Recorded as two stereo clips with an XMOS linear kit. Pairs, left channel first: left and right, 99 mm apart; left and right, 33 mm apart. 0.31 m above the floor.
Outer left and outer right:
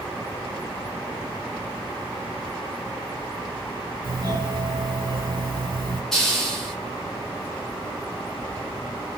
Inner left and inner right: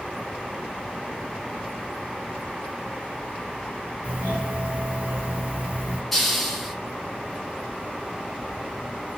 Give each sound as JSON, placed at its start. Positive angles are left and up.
{"t": 4.0, "sound": "a doorbell", "side_deg": -50, "distance_m": 2.5}
{"t": 6.1, "sound": "a hiss", "side_deg": 5, "distance_m": 1.9}